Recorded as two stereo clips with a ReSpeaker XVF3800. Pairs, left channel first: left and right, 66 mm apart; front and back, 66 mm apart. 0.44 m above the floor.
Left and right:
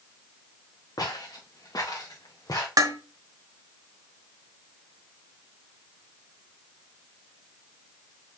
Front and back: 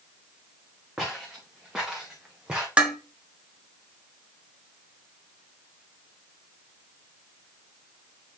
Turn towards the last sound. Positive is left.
turn(degrees=-110)